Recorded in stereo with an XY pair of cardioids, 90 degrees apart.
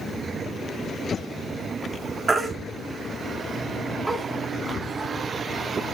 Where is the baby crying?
25° right, 2.5 m.